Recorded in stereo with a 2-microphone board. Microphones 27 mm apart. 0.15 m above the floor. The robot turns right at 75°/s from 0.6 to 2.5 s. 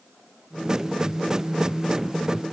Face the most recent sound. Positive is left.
No sound to turn to.